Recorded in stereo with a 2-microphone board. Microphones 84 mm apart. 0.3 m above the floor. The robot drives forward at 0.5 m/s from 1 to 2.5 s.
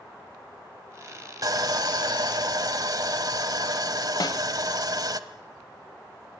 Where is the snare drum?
55° left (ahead or behind), 0.7 m.